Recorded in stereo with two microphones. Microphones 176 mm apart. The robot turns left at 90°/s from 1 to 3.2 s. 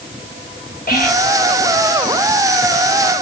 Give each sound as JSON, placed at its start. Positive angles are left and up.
{"t": 0.9, "sound": "whispering", "side_deg": 55, "distance_m": 1.7}